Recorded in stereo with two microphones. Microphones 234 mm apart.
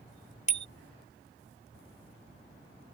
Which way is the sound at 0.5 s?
30° left (ahead or behind).